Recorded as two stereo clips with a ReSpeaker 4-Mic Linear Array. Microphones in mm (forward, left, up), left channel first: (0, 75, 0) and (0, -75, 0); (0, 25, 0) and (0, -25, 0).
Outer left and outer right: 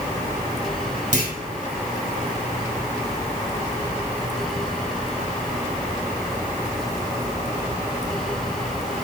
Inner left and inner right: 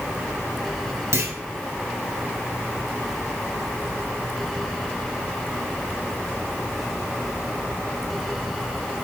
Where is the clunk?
60° right (ahead or behind), 2.5 m.